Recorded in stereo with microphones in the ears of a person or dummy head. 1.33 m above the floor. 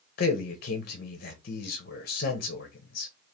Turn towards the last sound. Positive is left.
turn(degrees=50)  # may be behind; listen again after turning